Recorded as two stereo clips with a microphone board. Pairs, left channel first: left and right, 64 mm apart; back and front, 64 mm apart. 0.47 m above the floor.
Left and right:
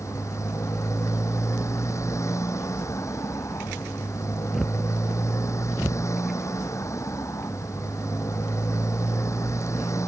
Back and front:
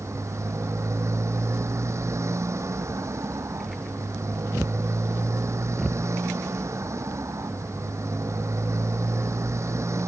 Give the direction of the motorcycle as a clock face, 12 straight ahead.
10 o'clock.